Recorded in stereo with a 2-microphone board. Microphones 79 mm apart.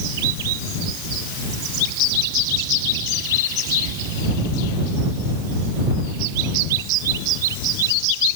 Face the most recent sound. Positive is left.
No sound to turn to.